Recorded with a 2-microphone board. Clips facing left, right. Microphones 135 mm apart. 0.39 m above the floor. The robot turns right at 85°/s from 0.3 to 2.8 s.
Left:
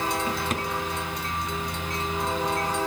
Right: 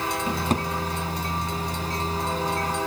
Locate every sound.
0.3 s a drawer: 20° right (ahead or behind), 1.8 m; by 0.7 s 50° right (ahead or behind), 1.8 m